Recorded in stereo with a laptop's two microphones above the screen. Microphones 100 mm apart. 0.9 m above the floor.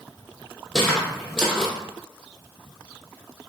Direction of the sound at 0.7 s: Centre (ahead or behind).